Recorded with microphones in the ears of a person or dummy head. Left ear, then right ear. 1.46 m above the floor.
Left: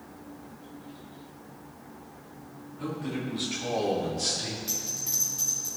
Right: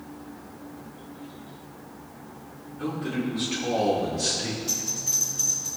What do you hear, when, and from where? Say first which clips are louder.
2.8 s a man speaking: right 4 dB; 10° right (ahead or behind), 4 m; by 4.6 s 5° left (ahead or behind), 3.5 m
4.7 s a bell: right 5 dB; 5° left (ahead or behind), 3.5 m